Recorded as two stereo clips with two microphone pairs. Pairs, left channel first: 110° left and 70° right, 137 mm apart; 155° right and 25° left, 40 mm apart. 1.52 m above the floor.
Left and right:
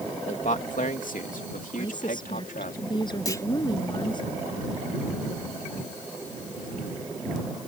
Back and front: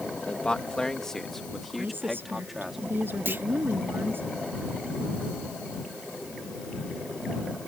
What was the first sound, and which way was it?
A man speaking, 140° left.